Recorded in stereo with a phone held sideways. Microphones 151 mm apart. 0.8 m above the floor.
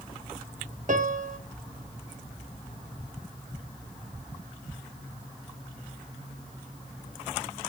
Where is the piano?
55° right (ahead or behind), 0.6 m.